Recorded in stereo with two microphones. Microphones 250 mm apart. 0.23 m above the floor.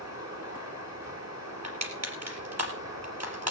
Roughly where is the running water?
Right.